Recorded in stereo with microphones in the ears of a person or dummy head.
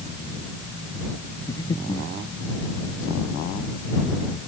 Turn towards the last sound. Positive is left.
turn(degrees=20)  # may be behind; listen again after turning